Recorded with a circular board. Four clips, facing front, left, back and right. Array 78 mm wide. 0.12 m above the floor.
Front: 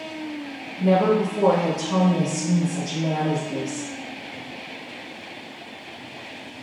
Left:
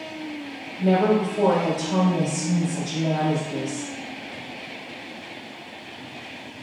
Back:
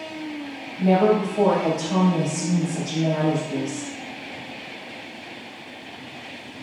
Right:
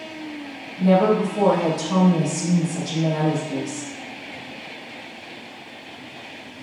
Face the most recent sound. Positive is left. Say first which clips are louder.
# right 2 dB, back 1 dB
turn(degrees=-90)